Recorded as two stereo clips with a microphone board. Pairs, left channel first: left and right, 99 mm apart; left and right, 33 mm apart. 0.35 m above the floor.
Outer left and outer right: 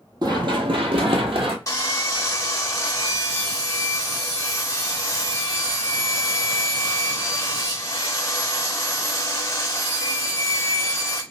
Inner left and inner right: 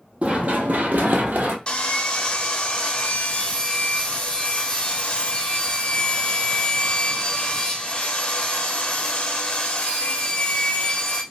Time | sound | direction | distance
0.2 | running footsteps | 45° right (ahead or behind) | 0.7 m
1.7 | sawing | 35° left (ahead or behind) | 0.6 m